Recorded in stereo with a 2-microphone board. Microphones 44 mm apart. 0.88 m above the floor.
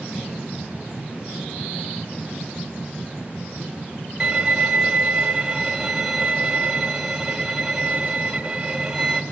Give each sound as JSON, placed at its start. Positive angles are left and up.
{"t": 4.2, "sound": "a violin", "side_deg": -15, "distance_m": 2.5}